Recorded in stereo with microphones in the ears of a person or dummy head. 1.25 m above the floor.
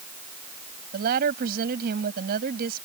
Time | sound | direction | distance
0.9 | a woman speaking | 50° right (ahead or behind) | ?